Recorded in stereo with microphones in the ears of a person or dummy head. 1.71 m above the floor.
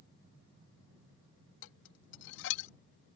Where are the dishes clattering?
65° left (ahead or behind).